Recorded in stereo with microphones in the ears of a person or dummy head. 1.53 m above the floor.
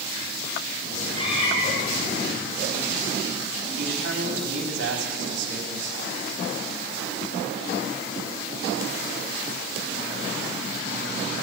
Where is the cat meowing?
35° left (ahead or behind), 7.5 m.